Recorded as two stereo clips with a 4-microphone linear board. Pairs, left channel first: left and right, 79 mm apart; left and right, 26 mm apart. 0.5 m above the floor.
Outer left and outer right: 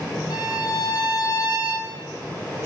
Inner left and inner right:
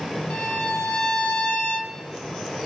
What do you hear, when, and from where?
0.3 s a violin: 60° left (ahead or behind), 1.3 m